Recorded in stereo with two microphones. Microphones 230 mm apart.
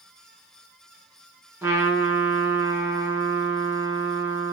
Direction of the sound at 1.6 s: 10° right (ahead or behind).